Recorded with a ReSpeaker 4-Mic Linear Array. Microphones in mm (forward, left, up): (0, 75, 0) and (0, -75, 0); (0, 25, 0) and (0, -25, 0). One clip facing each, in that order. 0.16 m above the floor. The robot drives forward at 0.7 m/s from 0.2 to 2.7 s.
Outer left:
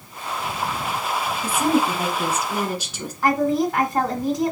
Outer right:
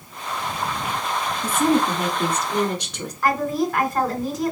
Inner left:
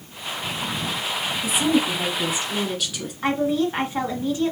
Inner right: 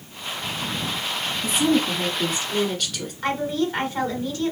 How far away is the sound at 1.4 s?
About 1.1 m.